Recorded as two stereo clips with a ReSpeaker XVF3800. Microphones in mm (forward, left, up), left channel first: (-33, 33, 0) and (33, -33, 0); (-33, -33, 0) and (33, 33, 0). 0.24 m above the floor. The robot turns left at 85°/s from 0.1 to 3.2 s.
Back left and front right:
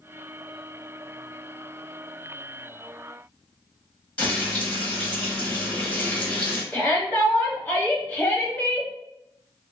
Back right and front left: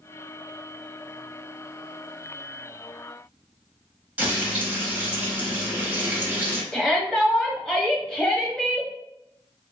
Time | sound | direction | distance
4.2 | frying | 85° left | 1.2 m
6.7 | a shout | 155° left | 1.0 m